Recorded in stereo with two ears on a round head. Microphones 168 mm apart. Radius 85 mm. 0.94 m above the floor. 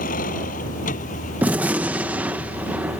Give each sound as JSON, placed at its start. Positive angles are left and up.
{"t": 0.0, "sound": "a vehicle", "side_deg": 45}
{"t": 1.4, "sound": "a gunshot", "side_deg": -10}